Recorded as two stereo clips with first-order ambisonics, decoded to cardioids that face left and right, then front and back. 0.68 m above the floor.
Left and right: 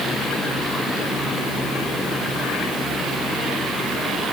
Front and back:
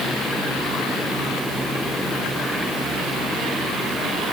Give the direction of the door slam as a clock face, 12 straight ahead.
No door slam in this recording.